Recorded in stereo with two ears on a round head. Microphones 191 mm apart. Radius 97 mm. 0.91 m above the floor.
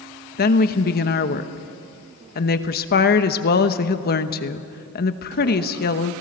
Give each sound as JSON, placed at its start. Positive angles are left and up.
{"t": 0.4, "sound": "a woman speaking", "side_deg": 45, "distance_m": 1.1}